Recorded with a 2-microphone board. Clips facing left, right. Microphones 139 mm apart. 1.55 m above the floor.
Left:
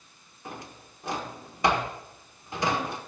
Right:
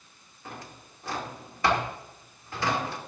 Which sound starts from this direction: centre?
A drawer, at 0.5 s.